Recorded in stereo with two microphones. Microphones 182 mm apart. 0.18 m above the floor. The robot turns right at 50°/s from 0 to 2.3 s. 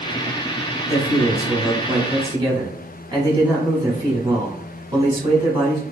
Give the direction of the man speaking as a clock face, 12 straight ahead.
4 o'clock.